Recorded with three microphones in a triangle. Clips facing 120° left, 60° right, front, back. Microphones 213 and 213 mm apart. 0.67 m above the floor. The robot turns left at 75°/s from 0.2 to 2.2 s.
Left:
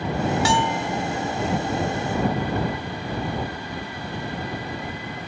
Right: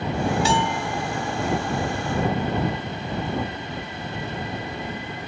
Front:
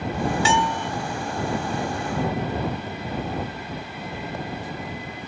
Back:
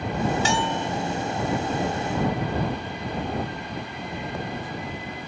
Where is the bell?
135° left; by 0.9 s 100° left.